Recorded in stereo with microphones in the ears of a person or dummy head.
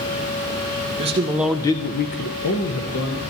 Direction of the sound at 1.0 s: 35° right (ahead or behind).